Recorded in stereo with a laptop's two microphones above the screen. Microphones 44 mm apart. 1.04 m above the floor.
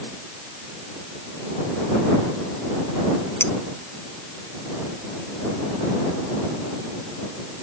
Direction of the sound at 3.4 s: 80° left.